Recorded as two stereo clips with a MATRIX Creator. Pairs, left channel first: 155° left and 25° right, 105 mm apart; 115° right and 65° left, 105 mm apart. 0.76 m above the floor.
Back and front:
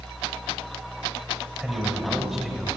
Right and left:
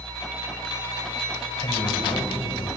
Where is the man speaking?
105° right, 4.5 m; by 2.7 s 110° right, 3 m.